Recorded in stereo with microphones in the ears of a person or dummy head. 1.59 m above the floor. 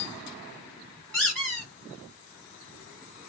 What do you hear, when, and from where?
1.1 s a squeak: 5° left (ahead or behind), 1.0 m